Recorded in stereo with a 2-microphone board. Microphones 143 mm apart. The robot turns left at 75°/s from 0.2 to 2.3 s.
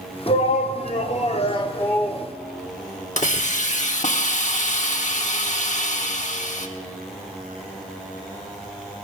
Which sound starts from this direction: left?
A hiss, at 3.2 s.